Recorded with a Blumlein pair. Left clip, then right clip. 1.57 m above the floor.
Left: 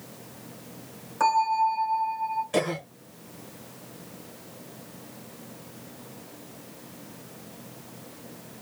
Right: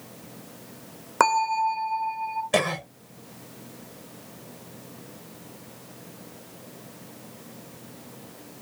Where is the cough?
40° right, 1.1 m.